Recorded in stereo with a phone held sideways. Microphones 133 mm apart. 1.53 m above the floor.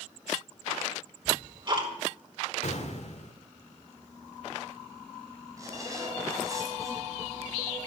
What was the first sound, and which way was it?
Ticking, 40° right (ahead or behind).